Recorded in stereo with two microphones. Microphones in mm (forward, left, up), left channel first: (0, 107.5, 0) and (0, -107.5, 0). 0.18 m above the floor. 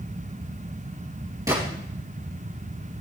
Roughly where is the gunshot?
Centre.